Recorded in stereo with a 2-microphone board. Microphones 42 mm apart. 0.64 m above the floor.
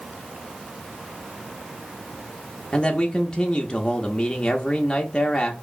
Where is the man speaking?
20° left (ahead or behind), 0.5 m.